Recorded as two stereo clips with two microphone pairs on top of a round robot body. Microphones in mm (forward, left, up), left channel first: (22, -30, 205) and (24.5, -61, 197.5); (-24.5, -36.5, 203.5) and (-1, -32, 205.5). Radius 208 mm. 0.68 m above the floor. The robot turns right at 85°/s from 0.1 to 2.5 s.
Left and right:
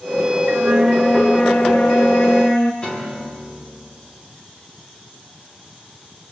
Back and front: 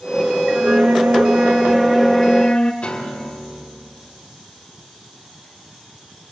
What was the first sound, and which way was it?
A flute, 40° right.